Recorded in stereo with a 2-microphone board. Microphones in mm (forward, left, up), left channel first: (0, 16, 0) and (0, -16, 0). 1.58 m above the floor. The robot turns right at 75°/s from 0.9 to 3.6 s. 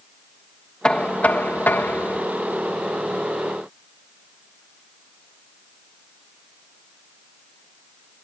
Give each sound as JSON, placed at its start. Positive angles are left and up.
{"t": 0.8, "sound": "knocking", "azimuth_deg": 25}